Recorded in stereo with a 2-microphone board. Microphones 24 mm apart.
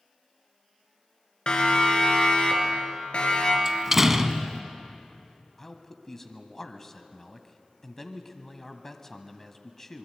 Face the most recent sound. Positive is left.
turn(degrees=15)  # may be behind; listen again after turning